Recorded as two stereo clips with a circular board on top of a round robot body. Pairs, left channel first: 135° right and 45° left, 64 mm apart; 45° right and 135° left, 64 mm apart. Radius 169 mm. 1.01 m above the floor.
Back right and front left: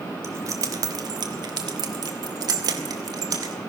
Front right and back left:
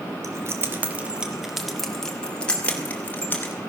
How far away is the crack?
No crack in this recording.